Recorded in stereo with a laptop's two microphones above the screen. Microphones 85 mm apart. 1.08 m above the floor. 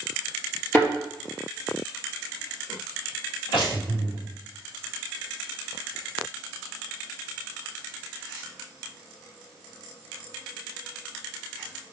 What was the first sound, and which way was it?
A thud, 30° left (ahead or behind).